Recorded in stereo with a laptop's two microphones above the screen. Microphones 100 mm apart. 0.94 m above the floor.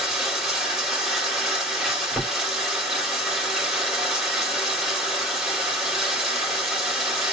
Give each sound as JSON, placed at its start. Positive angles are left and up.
{"t": 0.0, "sound": "running water", "side_deg": -5, "distance_m": 4.0}